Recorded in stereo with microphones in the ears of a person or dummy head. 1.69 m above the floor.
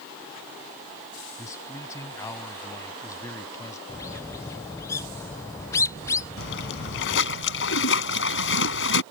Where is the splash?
70° left (ahead or behind).